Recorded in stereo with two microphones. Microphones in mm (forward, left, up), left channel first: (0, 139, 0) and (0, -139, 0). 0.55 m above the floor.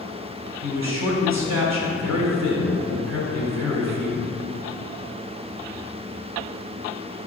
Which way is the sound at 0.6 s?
70° right (ahead or behind).